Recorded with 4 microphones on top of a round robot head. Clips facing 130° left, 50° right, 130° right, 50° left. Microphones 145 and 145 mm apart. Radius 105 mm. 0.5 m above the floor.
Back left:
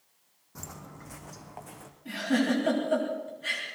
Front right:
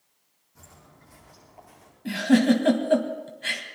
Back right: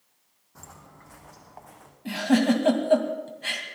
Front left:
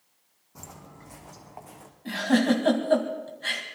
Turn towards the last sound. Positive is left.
turn(degrees=-55)